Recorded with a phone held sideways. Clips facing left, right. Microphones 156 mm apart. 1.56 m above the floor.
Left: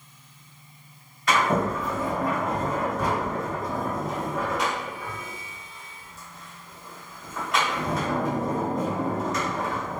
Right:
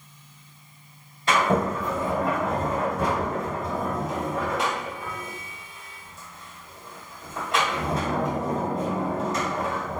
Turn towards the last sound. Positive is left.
turn(degrees=-30)  # may be behind; listen again after turning